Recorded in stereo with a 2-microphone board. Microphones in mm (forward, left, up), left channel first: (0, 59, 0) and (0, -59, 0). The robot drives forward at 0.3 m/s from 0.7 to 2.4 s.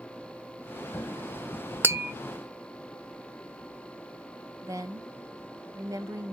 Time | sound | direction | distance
1.8 | tapping | 20° right (ahead or behind) | 0.7 m
4.6 | a woman speaking | 25° right (ahead or behind) | 0.8 m